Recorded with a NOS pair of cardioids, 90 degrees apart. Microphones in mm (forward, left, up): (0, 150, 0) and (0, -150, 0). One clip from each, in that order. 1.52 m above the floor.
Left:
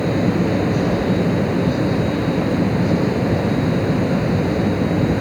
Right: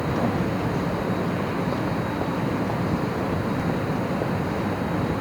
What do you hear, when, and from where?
0.0 s a fan: 60° left